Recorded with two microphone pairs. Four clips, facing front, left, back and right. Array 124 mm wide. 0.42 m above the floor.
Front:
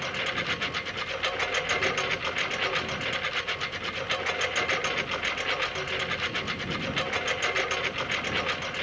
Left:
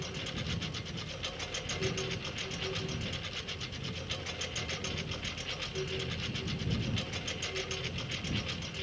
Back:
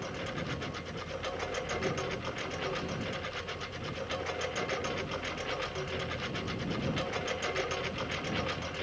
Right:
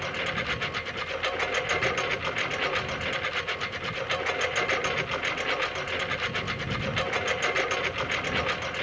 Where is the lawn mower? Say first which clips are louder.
Right 9 dB, front 5 dB; 45° right; by 8.8 s 55° right.